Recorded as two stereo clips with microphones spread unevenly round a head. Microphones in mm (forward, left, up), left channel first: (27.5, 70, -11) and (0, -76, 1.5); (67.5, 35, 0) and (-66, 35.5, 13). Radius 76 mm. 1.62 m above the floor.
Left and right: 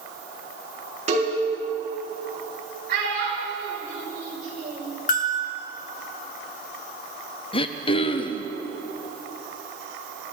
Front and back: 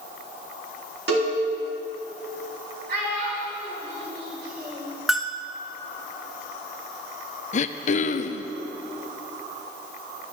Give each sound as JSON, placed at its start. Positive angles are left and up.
{"t": 1.1, "sound": "a cowbell", "azimuth_deg": -150, "distance_m": 4.5}
{"t": 2.9, "sound": "a child speaking", "azimuth_deg": -140, "distance_m": 5.5}
{"t": 5.1, "sound": "a bell", "azimuth_deg": 100, "distance_m": 1.4}
{"t": 7.5, "sound": "throat clearing", "azimuth_deg": 25, "distance_m": 0.7}